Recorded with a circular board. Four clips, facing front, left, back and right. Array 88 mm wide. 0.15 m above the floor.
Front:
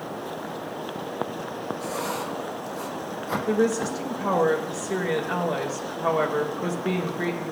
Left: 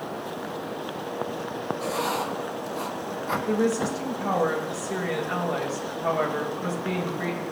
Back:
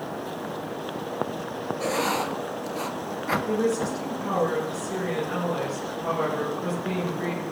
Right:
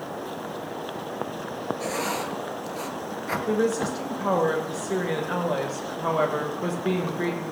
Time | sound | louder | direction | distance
1.8 | writing | left 2 dB, back 7 dB | 155° right | 1.8 m
3.5 | a woman speaking | right 1 dB, front 4 dB | 45° right | 5.5 m